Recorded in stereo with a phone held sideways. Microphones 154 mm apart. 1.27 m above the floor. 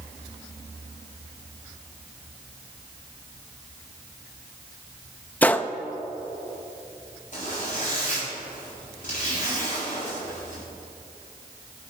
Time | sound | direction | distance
5.4 | a gunshot | 10° left (ahead or behind) | 0.5 m
7.3 | a zipper | 60° left (ahead or behind) | 6 m